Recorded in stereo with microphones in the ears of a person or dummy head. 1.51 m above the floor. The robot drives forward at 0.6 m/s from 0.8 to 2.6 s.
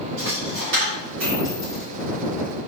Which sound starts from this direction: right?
A dropped coin, at 0.2 s.